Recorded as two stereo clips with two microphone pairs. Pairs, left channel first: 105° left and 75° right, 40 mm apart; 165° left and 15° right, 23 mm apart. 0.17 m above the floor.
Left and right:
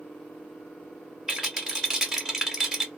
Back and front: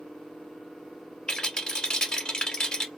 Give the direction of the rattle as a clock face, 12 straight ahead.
5 o'clock.